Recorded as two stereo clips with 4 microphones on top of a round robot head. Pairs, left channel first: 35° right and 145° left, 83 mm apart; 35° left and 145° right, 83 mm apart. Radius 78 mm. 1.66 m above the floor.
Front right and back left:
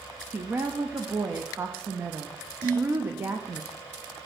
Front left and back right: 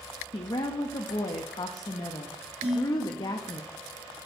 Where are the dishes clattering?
155° right, 2 m.